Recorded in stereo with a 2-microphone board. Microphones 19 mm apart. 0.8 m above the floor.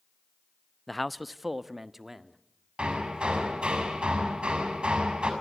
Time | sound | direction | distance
0.9 | a man speaking | 10° left (ahead or behind) | 0.7 m
2.8 | hammering | 65° right (ahead or behind) | 5.5 m